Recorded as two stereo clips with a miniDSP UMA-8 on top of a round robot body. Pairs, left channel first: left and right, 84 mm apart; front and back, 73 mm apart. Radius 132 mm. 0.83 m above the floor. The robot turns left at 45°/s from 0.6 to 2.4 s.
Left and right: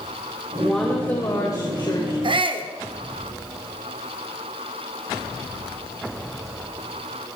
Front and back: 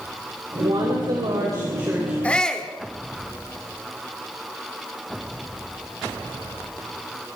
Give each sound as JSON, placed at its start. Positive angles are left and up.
{"t": 0.6, "sound": "a woman speaking", "azimuth_deg": 180, "distance_m": 4.5}
{"t": 2.2, "sound": "a shout", "azimuth_deg": -70, "distance_m": 3.0}